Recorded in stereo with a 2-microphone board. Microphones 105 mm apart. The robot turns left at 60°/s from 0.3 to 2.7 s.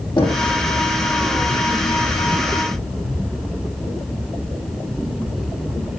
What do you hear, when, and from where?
0.2 s knocking: 45° left (ahead or behind), 7.5 m; by 0.5 s 35° left (ahead or behind), 7.5 m